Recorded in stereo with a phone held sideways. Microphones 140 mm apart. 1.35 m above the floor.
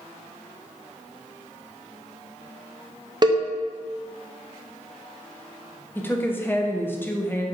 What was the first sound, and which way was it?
A cowbell, 30° right (ahead or behind).